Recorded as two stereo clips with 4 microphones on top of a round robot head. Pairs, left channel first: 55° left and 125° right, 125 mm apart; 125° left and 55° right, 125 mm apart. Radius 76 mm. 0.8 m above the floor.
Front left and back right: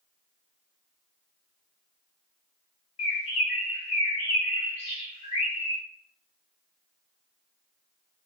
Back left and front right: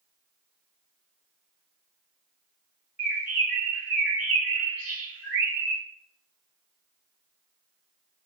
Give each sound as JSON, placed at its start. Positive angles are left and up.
{"t": 3.0, "sound": "a bird", "azimuth_deg": 20, "distance_m": 1.6}